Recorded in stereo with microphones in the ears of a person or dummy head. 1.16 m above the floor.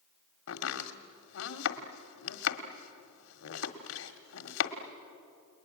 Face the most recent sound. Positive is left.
turn(degrees=75)  # may be behind; listen again after turning